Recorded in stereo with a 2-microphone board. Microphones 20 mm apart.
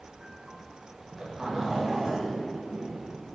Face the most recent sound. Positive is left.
turn(degrees=-35)  # may be behind; listen again after turning